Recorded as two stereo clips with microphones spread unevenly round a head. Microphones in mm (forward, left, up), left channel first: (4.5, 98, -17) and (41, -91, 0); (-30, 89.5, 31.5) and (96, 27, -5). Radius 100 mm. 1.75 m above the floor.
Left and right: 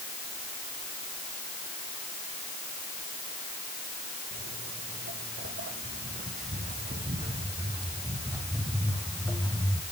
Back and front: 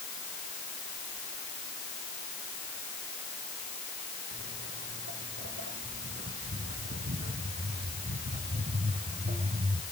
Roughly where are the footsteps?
Ahead right.